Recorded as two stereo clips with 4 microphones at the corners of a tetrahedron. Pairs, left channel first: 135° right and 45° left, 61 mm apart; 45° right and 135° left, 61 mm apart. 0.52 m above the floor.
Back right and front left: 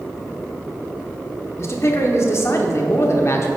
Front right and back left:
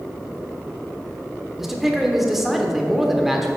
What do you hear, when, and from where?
1.6 s a man speaking: 140° right, 1.1 m